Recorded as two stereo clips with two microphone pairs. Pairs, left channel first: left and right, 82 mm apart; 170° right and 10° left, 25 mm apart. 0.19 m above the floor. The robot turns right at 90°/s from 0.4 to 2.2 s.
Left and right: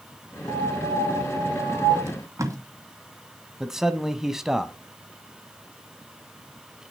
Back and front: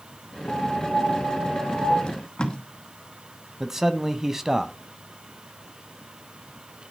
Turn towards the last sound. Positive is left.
turn(degrees=-20)